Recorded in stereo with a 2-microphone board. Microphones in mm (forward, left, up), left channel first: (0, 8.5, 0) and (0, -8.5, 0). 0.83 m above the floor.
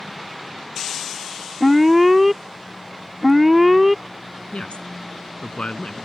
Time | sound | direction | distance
1.6 | an alarm | 10° right (ahead or behind) | ?
4.5 | a woman speaking | 80° left | ?